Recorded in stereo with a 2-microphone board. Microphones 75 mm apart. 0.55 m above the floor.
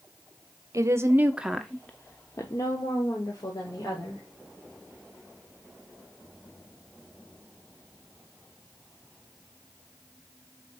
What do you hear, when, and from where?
0.7 s a woman speaking: 45° right (ahead or behind), 1.1 m; by 4.2 s 75° left (ahead or behind), 2.5 m